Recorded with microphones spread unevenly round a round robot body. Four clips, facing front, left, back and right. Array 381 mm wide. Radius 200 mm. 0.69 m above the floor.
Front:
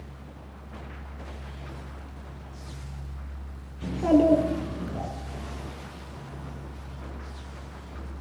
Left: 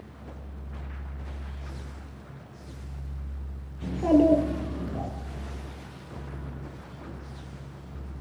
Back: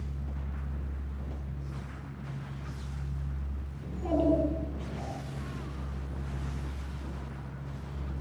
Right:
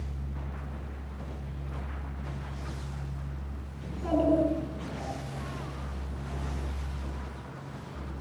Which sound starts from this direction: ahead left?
A child speaking, at 3.8 s.